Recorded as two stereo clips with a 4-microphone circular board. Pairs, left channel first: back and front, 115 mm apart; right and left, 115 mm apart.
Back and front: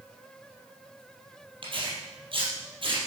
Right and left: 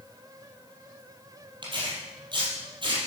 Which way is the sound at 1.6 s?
45° left.